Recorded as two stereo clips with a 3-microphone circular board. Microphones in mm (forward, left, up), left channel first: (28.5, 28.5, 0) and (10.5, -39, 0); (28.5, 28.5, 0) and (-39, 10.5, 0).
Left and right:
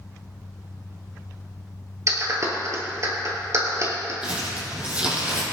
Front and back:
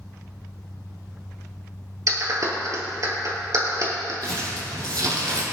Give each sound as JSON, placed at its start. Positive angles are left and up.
{"t": 2.1, "sound": "a clap", "azimuth_deg": -140, "distance_m": 3.0}
{"t": 4.2, "sound": "crumpling", "azimuth_deg": 180, "distance_m": 4.5}